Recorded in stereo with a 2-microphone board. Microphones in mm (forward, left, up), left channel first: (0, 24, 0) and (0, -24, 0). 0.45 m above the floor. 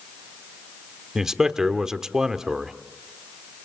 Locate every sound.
1.1 s a man speaking: 10° right (ahead or behind), 1.1 m